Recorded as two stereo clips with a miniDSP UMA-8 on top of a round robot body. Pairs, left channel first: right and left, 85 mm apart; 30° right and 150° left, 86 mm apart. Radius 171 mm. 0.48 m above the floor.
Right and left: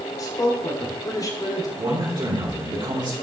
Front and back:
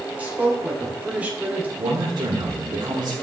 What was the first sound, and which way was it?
A man speaking, 140° right.